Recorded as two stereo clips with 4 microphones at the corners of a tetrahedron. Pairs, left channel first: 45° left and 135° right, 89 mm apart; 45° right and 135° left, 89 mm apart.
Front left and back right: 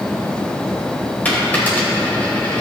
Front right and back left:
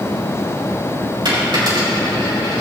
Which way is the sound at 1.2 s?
115° left.